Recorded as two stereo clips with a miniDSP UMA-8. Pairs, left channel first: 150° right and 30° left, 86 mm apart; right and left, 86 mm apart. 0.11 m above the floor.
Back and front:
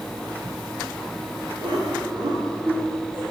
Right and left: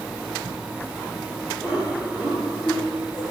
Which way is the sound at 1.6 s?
20° left.